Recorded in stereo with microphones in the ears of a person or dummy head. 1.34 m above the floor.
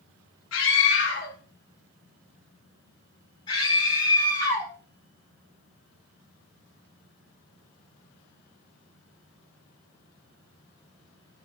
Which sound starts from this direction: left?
A scream, at 0.5 s.